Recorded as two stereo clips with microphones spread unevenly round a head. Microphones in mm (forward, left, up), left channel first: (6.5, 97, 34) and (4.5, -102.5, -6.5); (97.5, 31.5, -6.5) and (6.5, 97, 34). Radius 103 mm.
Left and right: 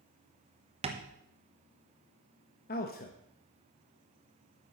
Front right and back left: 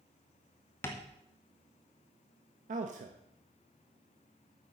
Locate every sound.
0.8 s tapping: 65° right, 1.1 m
2.7 s a man speaking: 135° left, 0.9 m